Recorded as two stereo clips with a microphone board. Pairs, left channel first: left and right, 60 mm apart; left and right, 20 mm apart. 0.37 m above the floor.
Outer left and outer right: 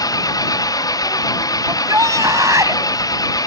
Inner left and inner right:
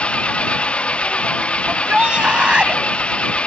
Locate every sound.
0.0 s an engine running: 80° left
1.7 s a shout: 65° right (ahead or behind)